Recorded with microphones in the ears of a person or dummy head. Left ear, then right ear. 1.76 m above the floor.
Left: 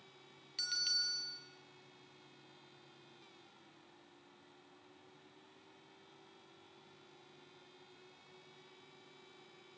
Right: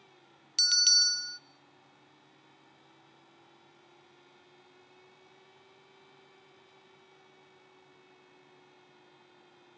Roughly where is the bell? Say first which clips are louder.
Right 12 dB; right.